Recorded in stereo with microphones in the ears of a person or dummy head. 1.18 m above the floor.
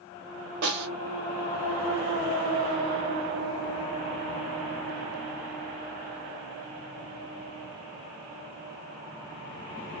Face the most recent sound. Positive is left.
turn(degrees=-75)  # may be behind; listen again after turning